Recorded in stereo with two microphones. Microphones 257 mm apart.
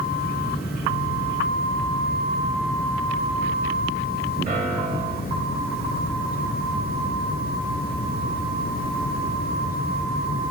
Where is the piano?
30° right (ahead or behind), 3.5 m.